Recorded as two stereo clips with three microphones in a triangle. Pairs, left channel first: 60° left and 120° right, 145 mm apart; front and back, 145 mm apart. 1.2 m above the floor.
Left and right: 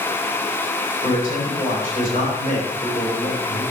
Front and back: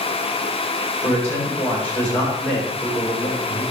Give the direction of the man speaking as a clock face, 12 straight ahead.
9 o'clock.